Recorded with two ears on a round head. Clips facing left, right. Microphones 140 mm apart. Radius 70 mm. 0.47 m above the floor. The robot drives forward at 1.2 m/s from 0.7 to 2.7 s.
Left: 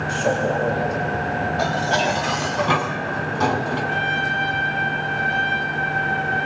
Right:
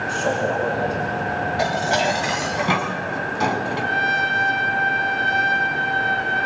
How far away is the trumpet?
About 3 m.